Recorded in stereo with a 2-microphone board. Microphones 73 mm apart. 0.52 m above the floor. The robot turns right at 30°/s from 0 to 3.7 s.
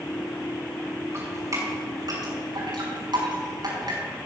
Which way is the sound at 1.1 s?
35° right (ahead or behind).